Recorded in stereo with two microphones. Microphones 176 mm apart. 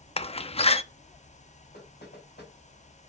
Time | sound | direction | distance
0.2 | a door slam | 35° left (ahead or behind) | 0.7 m
1.7 | knocking | 75° left (ahead or behind) | 5 m